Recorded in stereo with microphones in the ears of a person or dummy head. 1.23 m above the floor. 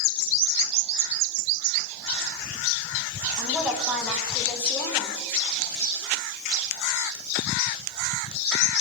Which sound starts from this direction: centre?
A woman speaking, at 3.4 s.